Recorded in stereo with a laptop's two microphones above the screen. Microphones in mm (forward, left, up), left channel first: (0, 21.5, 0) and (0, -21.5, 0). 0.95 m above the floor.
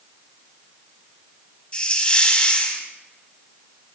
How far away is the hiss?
About 4 m.